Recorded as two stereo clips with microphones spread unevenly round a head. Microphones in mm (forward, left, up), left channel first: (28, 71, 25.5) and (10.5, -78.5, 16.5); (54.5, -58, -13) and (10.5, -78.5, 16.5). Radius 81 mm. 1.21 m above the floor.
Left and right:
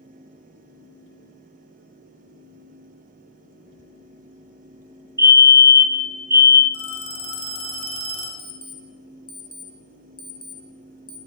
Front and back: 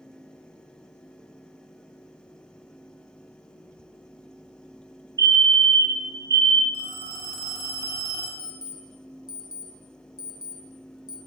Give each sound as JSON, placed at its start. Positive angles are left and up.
{"t": 5.2, "sound": "a fire alarm", "azimuth_deg": -155, "distance_m": 1.7}
{"t": 6.7, "sound": "a phone ringing", "azimuth_deg": 145, "distance_m": 2.0}
{"t": 8.4, "sound": "an alarm clock", "azimuth_deg": 25, "distance_m": 1.3}